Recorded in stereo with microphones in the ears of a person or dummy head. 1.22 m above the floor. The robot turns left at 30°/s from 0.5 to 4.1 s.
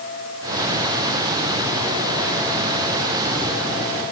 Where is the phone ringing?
No phone ringing in this recording.